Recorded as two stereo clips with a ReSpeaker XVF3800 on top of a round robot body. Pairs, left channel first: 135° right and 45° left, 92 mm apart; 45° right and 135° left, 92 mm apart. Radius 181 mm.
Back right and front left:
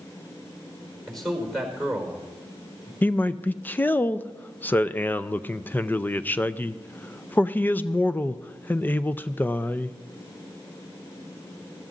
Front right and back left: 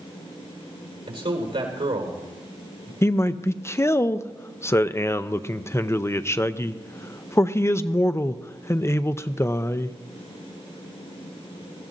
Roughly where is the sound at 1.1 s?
Behind left.